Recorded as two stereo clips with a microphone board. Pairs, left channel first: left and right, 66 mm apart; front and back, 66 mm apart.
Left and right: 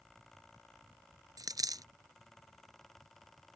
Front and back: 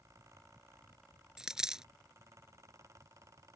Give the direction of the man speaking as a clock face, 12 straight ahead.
No man speaking in this recording.